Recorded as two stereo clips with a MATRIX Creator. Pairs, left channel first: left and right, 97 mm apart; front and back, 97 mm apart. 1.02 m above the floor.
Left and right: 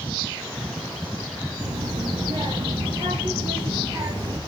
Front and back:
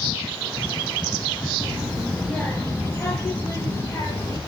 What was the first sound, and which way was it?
A child speaking, 100° right.